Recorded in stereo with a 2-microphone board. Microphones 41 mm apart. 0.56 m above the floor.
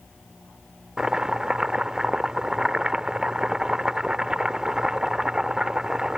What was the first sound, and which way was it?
Chopping, 20° right (ahead or behind).